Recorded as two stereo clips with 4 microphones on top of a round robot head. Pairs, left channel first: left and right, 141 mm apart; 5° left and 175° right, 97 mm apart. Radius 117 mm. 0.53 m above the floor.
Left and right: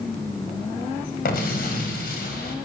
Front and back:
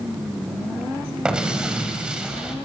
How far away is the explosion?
About 4 m.